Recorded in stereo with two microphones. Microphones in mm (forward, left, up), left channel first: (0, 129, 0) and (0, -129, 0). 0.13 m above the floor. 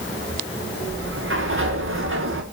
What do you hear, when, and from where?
0.9 s a sliding door: 50° right (ahead or behind), 2.5 m